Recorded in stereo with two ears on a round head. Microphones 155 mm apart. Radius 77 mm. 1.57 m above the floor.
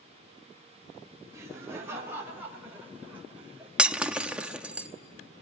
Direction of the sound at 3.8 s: 5° right (ahead or behind).